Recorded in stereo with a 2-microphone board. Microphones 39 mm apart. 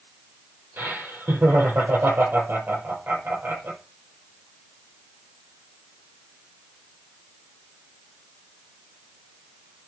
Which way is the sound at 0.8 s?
60° right (ahead or behind).